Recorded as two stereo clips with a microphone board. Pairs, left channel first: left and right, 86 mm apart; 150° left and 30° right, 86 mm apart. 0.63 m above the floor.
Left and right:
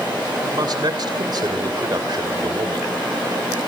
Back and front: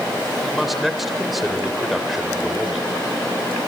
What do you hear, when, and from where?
0.4 s a man speaking: 120° right, 3 m